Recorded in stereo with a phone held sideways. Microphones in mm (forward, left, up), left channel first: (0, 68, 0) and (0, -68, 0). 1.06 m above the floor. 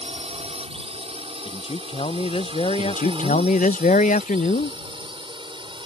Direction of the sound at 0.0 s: 50° right (ahead or behind).